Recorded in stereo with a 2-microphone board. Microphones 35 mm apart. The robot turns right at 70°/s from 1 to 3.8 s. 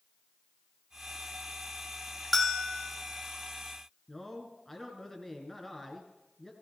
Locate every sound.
2.3 s a bell: 5° right, 0.9 m; by 2.9 s 35° left, 0.9 m
4.1 s a man speaking: 5° left (ahead or behind), 1.7 m